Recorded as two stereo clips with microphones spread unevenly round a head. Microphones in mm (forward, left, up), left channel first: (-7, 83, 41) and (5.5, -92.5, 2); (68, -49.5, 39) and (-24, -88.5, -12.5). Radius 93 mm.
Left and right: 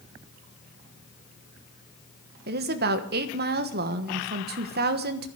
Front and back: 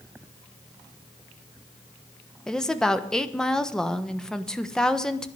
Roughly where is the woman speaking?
Right.